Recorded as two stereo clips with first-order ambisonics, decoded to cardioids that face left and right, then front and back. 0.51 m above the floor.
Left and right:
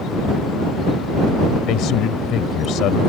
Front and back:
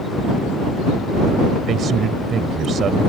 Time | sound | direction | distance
1.7 | a man speaking | 125° left | ?